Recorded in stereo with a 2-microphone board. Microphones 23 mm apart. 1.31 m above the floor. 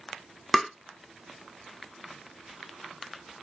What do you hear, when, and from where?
0.5 s tapping: 5° left (ahead or behind), 0.5 m